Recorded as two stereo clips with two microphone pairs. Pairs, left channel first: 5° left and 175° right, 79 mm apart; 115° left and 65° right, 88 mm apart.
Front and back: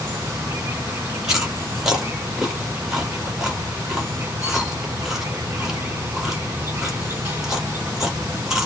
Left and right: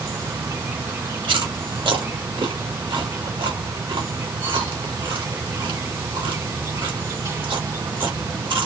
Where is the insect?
110° right, 1.9 m.